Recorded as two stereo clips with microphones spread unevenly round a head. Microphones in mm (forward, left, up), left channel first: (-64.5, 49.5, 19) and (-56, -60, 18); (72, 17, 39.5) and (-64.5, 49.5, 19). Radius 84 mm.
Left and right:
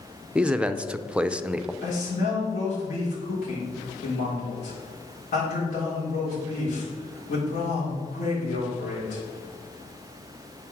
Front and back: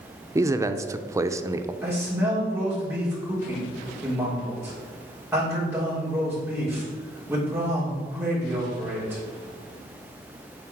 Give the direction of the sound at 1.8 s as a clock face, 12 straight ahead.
9 o'clock.